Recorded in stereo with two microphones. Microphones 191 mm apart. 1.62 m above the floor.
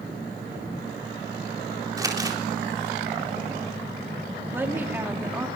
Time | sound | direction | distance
2.0 | crumpling | 20° right (ahead or behind) | 4 m
4.5 | a woman speaking | 10° right (ahead or behind) | 3 m